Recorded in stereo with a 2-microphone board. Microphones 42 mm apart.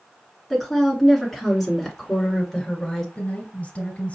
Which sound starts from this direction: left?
A woman speaking, at 3.1 s.